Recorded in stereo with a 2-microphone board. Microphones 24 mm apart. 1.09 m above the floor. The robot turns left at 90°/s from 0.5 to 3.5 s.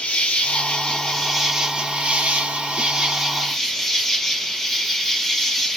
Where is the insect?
80° left, 0.9 m; by 5.8 s 170° left, 0.9 m.